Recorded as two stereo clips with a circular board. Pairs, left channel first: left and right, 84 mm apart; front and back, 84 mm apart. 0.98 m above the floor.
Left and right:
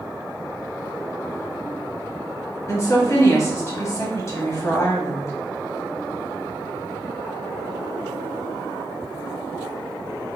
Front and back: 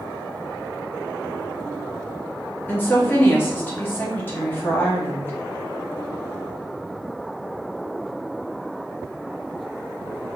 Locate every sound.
2.7 s a woman speaking: 55° left, 1.0 m